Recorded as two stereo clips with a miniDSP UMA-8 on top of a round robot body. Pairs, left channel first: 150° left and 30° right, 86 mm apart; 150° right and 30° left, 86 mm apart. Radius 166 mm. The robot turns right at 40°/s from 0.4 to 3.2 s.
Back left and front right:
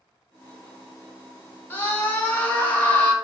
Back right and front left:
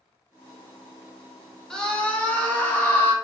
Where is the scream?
140° left, 0.9 m; by 3.1 s 165° right, 0.9 m.